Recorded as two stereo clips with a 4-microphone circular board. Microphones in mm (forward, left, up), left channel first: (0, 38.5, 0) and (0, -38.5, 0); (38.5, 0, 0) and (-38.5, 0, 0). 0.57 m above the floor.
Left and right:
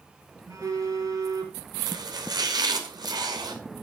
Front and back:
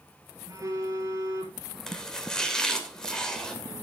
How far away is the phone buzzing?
About 3.5 m.